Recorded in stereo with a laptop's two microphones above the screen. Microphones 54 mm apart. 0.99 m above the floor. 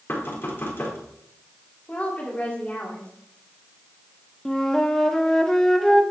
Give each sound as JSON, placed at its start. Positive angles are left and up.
{"t": 0.1, "sound": "knocking", "side_deg": 45, "distance_m": 1.7}
{"t": 1.9, "sound": "a woman speaking", "side_deg": 25, "distance_m": 2.0}
{"t": 4.5, "sound": "a flute", "side_deg": 10, "distance_m": 0.9}